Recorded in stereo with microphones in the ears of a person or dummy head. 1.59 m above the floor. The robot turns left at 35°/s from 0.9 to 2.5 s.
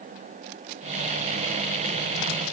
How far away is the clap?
I don't hear a clap.